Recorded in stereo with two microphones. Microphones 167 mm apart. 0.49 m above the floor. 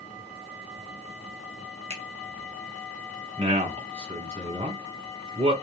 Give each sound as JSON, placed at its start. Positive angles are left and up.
{"t": 1.9, "sound": "a finger snap", "side_deg": -40, "distance_m": 1.0}
{"t": 3.4, "sound": "a man speaking", "side_deg": -40, "distance_m": 2.0}